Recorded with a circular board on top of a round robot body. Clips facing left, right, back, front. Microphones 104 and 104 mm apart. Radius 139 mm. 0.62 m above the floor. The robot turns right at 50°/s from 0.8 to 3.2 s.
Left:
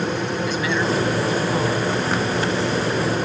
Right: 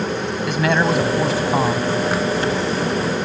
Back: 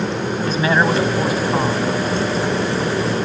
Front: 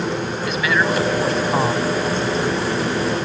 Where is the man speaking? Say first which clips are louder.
Right 6 dB, back 3 dB; 120° right; by 1.9 s 70° right.